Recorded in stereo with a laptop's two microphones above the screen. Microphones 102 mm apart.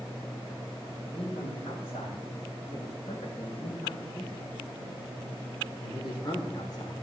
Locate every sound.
1.1 s a man speaking: 85° left, 4.5 m; by 6.9 s 45° left (ahead or behind), 3 m